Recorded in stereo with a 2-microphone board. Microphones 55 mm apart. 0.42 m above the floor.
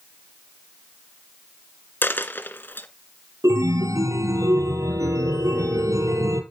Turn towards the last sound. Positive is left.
turn(degrees=-75)  # may be behind; listen again after turning